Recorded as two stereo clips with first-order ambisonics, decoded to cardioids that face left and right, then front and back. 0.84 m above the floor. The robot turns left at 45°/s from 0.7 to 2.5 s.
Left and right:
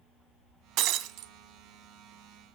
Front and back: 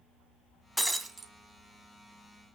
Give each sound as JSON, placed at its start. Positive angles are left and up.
{"t": 0.8, "sound": "breaking glass", "azimuth_deg": -85, "distance_m": 1.2}